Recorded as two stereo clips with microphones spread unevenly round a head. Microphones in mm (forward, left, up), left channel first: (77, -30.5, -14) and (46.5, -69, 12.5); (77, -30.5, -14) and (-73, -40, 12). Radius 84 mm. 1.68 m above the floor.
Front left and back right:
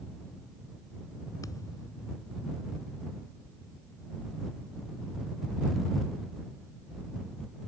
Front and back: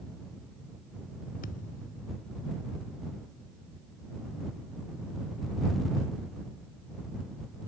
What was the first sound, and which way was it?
A thud, 50° left.